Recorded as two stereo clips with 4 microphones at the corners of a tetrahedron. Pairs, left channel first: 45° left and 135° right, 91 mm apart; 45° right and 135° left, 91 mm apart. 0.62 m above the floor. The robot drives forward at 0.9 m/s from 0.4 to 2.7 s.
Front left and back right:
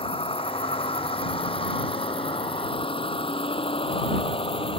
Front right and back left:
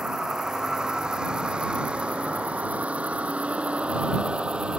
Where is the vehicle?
50° left; by 4.8 s 55° left.